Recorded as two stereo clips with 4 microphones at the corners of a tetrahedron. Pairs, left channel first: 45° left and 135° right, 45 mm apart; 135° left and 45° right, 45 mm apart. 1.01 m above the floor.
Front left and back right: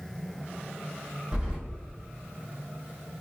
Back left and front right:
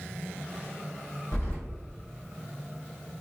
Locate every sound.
1.3 s keys jangling: 155° left, 1.3 m